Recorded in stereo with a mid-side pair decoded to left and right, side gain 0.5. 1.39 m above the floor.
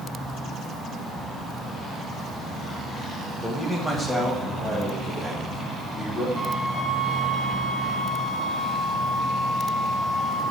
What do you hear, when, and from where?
3.4 s a man speaking: 15° right, 1.0 m; by 6.2 s 10° left, 3 m
6.3 s a flute: 10° left, 1.3 m